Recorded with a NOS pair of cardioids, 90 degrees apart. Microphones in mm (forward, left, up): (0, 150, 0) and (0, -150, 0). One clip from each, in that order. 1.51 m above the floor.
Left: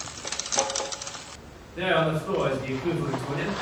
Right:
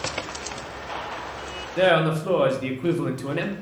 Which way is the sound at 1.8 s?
50° right.